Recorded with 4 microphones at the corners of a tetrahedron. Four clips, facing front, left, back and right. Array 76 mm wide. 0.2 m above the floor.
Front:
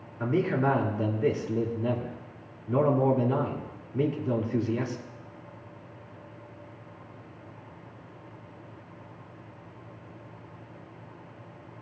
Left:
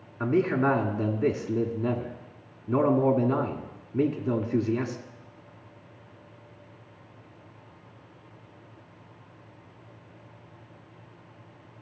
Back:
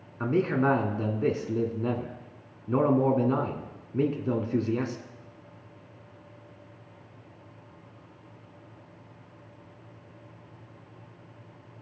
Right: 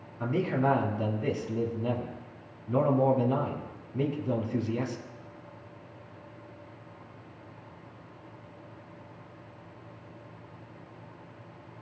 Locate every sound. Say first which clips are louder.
0.2 s a man speaking: left 4 dB, back 1 dB; 130° left, 1.7 m